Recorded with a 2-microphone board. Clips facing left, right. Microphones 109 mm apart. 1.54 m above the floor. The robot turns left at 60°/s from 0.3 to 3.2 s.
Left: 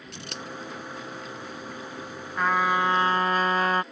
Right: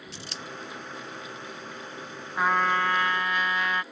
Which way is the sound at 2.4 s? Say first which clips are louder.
Left 1 dB; 170° right.